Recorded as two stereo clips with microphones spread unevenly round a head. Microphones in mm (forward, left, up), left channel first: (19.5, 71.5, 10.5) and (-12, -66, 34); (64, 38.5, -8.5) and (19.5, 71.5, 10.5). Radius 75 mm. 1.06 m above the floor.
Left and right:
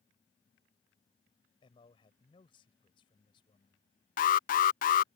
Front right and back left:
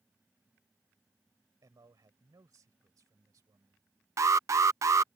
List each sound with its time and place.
1.6 s a man speaking: 135° left
4.2 s an alarm: 110° left